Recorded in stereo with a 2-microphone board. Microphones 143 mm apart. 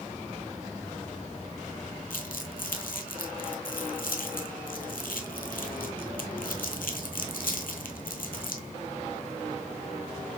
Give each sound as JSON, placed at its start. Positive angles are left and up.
{"t": 2.1, "sound": "crumpling", "side_deg": 85, "distance_m": 0.9}